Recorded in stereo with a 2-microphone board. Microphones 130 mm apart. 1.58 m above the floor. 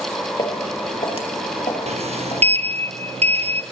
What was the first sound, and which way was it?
Footsteps, 40° left (ahead or behind).